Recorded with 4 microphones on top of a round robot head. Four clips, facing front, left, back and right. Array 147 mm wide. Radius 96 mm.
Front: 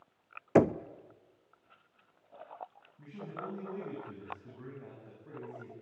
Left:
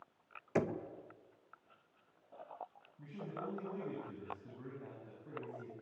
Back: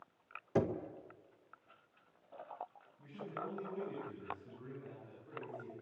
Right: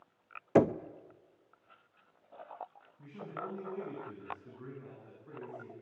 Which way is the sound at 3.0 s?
45° left.